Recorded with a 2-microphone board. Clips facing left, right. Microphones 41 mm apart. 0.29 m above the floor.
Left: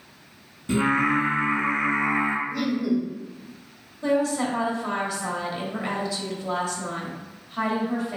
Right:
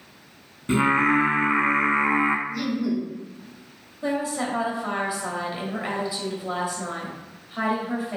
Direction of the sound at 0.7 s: 30° right (ahead or behind).